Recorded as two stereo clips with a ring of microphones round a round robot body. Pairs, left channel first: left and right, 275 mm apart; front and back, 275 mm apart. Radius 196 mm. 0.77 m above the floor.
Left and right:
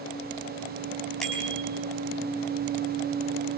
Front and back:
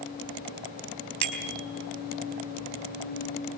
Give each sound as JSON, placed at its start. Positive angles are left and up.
{"t": 1.2, "sound": "a bicycle bell", "azimuth_deg": 180, "distance_m": 4.5}